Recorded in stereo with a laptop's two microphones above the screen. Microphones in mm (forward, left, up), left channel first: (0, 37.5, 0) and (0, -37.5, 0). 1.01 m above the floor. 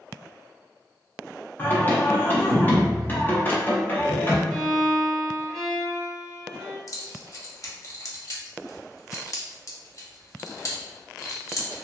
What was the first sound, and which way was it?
Singing, 25° left (ahead or behind).